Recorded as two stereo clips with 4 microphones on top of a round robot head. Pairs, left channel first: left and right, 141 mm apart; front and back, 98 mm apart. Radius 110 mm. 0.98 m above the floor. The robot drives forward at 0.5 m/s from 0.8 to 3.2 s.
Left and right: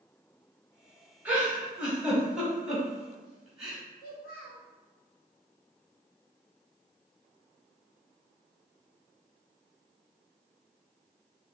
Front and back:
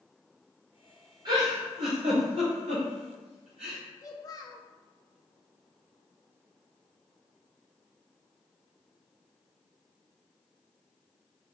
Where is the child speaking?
55° left, 0.8 m.